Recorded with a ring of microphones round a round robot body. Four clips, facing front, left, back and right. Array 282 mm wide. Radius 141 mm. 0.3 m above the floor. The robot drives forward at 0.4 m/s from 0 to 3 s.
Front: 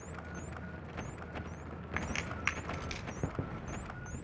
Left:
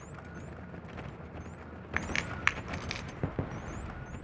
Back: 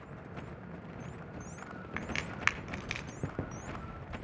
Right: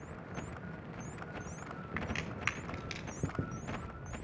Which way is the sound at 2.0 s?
85° left.